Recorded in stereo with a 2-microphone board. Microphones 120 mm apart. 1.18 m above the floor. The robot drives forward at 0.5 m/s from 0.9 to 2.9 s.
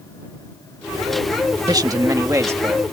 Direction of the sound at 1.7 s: 35° right (ahead or behind).